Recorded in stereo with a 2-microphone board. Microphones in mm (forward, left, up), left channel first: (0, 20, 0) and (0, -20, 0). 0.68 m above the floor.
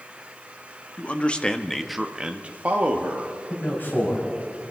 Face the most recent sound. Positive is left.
turn(degrees=55)  # may be behind; listen again after turning